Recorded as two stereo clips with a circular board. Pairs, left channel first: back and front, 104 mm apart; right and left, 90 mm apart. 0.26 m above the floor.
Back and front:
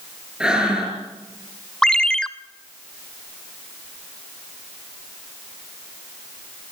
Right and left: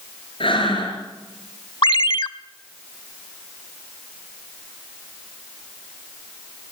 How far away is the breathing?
About 5 m.